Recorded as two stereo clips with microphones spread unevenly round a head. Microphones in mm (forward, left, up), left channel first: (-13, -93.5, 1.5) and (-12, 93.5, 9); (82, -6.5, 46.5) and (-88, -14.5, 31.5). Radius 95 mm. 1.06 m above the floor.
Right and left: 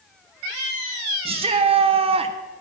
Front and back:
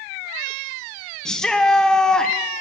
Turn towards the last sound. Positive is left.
turn(degrees=95)